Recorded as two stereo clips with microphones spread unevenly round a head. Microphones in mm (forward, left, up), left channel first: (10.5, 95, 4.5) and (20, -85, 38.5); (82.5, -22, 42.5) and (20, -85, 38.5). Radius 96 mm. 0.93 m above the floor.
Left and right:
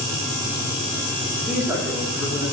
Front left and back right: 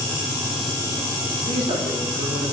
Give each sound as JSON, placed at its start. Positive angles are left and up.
{"t": 1.3, "sound": "a man speaking", "azimuth_deg": -175, "distance_m": 3.0}